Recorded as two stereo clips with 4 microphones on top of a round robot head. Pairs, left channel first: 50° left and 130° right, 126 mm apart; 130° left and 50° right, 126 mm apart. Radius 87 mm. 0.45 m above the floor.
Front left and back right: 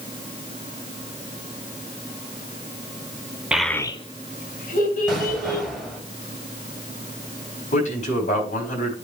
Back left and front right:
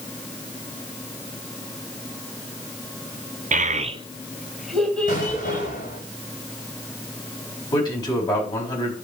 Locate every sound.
3.5 s a child speaking: 50° right, 1.0 m; by 5.7 s 60° left, 3 m
5.1 s an explosion: 135° left, 3 m
7.7 s a man speaking: 75° left, 4 m